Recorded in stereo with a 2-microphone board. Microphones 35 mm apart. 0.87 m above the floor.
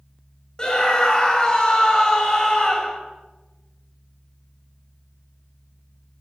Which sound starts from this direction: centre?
A scream, at 0.6 s.